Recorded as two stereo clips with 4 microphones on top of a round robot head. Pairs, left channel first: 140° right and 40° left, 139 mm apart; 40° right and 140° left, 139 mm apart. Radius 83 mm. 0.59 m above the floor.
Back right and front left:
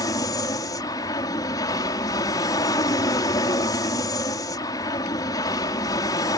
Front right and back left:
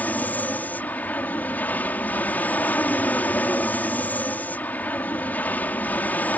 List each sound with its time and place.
0.0 s an aircraft: 110° right